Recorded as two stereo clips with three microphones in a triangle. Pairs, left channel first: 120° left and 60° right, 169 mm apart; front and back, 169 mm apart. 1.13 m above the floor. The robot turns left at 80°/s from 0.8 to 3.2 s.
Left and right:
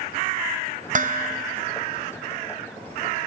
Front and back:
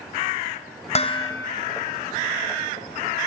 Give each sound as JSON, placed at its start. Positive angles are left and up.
{"t": 0.9, "sound": "dishes clattering", "azimuth_deg": -40, "distance_m": 0.5}